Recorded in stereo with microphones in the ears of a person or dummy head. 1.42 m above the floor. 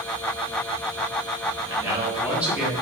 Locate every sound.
1.6 s a man speaking: 20° right (ahead or behind), 2.5 m; by 2.7 s centre (ahead or behind), 2.5 m